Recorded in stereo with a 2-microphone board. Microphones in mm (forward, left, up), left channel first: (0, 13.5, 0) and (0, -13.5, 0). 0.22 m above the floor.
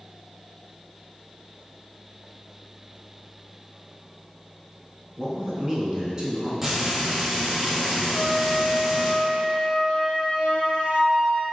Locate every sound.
5.2 s a man speaking: 25° right (ahead or behind), 1.8 m
6.6 s frying: 15° right (ahead or behind), 2.0 m
8.1 s a flute: 50° left (ahead or behind), 1.5 m